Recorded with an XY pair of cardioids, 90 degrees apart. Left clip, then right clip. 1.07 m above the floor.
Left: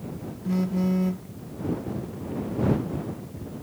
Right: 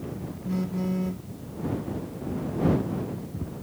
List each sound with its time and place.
0.5 s a phone buzzing: 30° left